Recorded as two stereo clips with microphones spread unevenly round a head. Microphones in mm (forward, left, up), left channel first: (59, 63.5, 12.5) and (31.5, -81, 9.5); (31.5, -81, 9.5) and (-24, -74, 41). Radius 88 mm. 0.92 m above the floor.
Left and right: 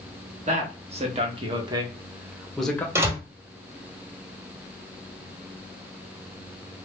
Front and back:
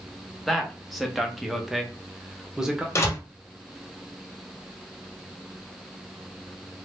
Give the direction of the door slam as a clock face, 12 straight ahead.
1 o'clock.